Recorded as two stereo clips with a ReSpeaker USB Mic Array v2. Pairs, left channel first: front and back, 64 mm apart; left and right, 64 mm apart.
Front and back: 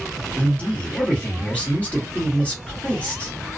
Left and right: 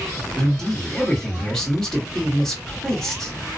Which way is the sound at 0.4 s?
20° left.